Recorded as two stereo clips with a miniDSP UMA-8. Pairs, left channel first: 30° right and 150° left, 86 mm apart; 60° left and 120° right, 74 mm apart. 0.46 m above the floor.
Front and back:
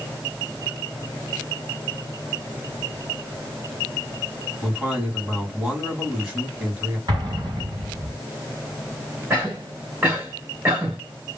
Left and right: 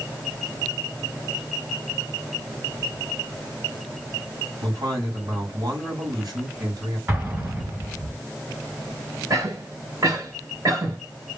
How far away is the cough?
About 3 m.